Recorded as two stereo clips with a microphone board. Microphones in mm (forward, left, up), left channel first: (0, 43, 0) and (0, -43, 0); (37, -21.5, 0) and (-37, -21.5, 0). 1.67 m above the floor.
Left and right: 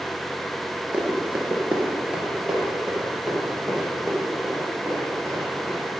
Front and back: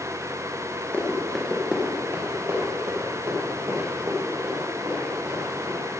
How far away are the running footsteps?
About 1.8 m.